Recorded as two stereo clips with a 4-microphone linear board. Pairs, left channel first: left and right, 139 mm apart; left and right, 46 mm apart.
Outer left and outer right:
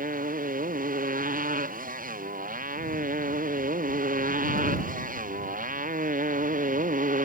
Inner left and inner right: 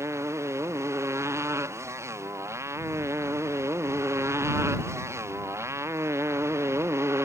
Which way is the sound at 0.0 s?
85° right.